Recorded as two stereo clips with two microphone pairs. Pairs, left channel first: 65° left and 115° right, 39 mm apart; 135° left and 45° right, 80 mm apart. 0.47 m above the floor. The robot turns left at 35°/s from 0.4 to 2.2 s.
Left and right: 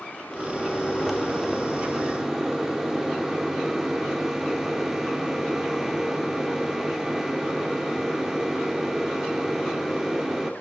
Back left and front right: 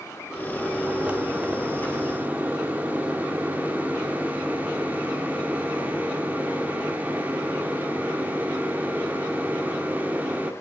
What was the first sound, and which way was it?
A microwave, 10° left.